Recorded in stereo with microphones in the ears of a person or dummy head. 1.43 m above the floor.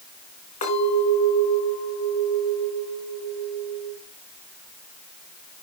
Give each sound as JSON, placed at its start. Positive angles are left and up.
{"t": 0.6, "sound": "a clink", "side_deg": 45, "distance_m": 4.0}